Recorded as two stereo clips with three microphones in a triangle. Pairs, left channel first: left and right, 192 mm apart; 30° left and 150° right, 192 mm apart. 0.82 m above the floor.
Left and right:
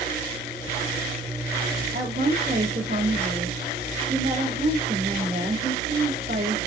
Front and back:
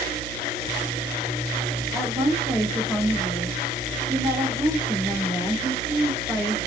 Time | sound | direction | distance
1.9 | a woman speaking | 70° right | 2.5 m